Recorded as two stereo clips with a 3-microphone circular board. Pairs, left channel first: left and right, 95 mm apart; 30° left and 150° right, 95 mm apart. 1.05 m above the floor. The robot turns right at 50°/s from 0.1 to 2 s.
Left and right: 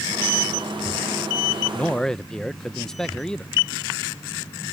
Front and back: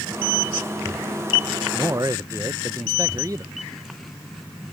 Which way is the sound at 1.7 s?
160° left.